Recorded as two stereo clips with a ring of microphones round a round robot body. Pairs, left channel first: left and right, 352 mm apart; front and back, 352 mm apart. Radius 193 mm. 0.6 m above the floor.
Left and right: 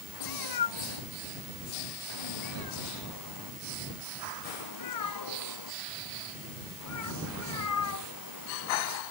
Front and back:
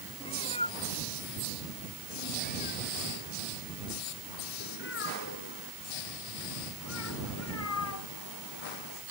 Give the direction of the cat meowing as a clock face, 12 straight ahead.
9 o'clock.